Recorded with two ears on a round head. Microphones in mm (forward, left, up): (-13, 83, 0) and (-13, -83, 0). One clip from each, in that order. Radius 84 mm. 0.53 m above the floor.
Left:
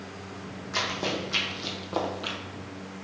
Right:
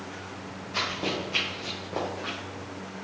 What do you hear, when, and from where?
0.7 s running footsteps: 40° left (ahead or behind), 1.7 m; by 2.4 s 60° left (ahead or behind), 0.9 m